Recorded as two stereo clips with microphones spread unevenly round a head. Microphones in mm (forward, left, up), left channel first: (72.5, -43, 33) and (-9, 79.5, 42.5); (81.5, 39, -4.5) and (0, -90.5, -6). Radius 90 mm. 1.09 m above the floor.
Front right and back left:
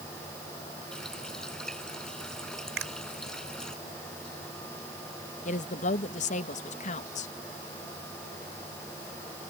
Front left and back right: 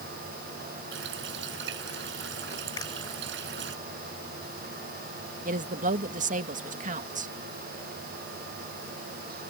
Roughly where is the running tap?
Behind right.